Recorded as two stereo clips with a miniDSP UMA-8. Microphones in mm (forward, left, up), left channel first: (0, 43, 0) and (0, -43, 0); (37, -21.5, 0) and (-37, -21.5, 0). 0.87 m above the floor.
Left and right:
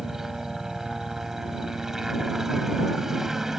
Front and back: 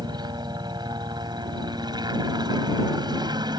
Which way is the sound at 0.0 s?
175° right.